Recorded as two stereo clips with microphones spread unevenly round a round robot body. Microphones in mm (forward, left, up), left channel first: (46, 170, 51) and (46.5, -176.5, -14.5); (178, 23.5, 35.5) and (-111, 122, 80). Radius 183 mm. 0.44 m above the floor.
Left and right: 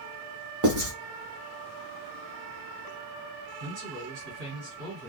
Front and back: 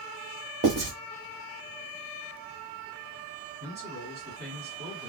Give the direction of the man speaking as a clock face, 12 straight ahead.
4 o'clock.